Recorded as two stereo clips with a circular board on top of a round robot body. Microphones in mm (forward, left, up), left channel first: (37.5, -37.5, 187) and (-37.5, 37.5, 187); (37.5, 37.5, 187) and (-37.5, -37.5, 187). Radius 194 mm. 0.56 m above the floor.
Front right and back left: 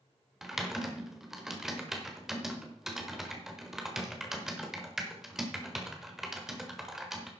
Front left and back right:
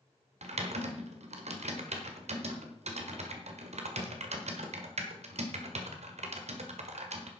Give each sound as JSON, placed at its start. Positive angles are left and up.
{"t": 0.4, "sound": "typing on a keyboard", "azimuth_deg": -140, "distance_m": 1.6}